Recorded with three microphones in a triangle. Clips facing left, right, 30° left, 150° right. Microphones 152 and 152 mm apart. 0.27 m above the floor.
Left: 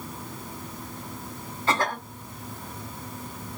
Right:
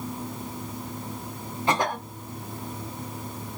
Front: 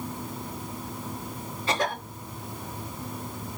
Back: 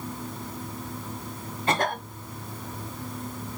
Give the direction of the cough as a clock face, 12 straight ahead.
5 o'clock.